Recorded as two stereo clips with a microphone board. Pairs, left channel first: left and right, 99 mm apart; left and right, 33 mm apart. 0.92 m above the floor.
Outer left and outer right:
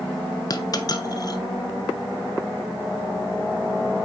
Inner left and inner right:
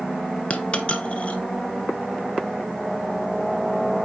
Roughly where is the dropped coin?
Left.